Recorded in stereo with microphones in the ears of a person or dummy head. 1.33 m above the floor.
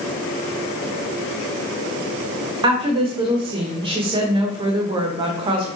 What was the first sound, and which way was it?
A woman speaking, 30° right (ahead or behind).